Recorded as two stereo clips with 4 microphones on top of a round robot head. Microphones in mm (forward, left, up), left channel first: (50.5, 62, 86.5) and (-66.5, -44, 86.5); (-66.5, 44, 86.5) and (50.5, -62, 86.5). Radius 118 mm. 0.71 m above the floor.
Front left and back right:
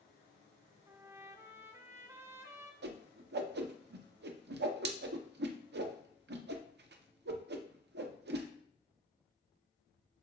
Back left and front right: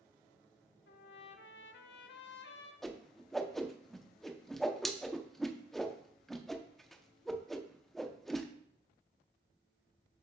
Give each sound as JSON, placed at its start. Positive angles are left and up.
{"t": 0.9, "sound": "a trumpet", "azimuth_deg": 150, "distance_m": 0.6}
{"t": 2.8, "sound": "a whoosh", "azimuth_deg": -135, "distance_m": 0.7}